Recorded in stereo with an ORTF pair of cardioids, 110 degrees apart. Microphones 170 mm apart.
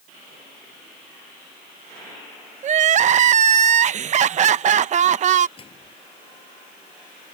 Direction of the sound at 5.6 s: 30° left.